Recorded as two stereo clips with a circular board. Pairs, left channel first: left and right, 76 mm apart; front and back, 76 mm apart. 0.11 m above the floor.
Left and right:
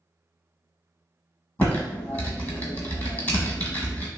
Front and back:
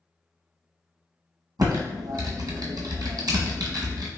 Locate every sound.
1.6 s typing on a keyboard: 155° left, 0.8 m